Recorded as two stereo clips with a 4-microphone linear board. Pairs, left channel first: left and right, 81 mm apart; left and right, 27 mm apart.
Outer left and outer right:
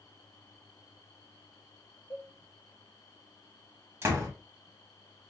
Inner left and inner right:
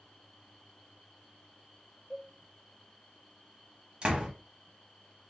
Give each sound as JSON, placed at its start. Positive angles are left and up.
{"t": 2.1, "sound": "a cowbell", "side_deg": 30, "distance_m": 0.7}
{"t": 4.0, "sound": "a door slam", "side_deg": -35, "distance_m": 1.5}